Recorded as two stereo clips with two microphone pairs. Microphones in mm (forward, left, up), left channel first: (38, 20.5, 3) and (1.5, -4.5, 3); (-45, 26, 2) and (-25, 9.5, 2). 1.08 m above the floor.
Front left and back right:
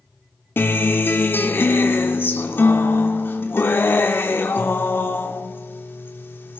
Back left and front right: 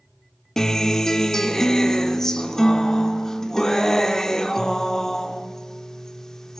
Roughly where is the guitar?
Ahead left.